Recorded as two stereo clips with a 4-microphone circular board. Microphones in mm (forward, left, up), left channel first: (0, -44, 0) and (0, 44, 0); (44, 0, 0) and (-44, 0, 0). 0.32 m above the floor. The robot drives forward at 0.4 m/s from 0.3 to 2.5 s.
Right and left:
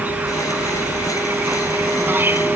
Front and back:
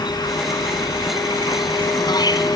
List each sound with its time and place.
0.0 s an insect: 25° left; by 2.6 s 30° left